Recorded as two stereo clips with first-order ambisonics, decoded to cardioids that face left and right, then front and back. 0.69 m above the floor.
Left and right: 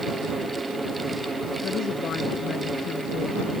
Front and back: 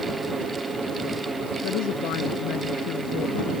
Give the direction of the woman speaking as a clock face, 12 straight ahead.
11 o'clock.